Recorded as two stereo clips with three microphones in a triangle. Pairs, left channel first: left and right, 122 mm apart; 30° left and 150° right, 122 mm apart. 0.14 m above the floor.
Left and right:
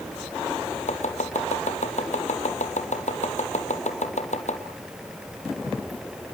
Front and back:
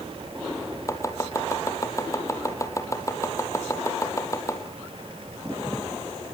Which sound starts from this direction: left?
Chopping, at 0.9 s.